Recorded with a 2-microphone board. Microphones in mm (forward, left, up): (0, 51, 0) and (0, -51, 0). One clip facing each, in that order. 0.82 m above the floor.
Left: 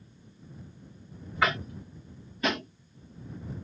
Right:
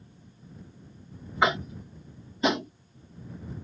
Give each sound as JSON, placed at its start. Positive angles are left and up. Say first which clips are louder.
{"t": 1.4, "sound": "tapping", "louder": "right 3 dB", "side_deg": -20}